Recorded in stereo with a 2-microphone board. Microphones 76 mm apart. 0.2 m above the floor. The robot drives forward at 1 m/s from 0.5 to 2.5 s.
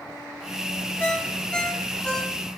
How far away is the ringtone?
About 1.0 m.